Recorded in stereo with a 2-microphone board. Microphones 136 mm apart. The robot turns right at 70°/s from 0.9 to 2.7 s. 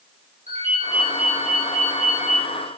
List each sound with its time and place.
0.5 s a ringtone: 55° right, 3 m; by 2.5 s 55° left, 3 m